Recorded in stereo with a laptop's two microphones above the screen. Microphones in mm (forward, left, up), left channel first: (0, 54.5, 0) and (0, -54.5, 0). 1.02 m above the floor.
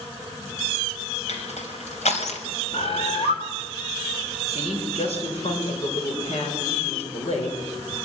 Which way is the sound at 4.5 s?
65° left (ahead or behind).